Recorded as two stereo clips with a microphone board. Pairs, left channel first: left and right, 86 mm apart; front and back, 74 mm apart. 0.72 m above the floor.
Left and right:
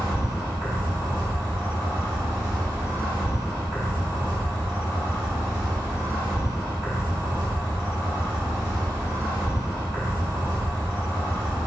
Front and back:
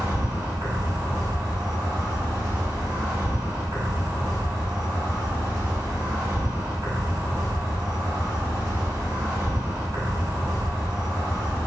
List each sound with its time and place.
0.0 s an insect: 140° right, 0.9 m